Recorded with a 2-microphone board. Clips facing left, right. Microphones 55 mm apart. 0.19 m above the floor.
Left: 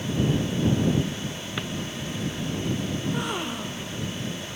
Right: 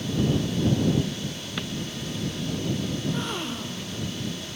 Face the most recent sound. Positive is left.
turn(degrees=10)  # may be behind; listen again after turning